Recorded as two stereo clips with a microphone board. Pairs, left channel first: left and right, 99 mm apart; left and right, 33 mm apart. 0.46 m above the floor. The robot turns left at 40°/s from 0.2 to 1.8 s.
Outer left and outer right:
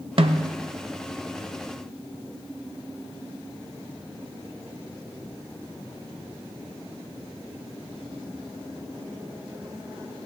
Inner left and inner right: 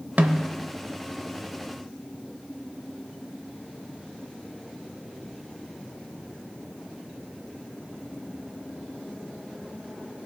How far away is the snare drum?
About 0.6 m.